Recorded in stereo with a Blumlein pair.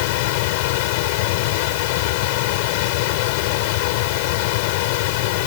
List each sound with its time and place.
0.0 s a machine running: 45° left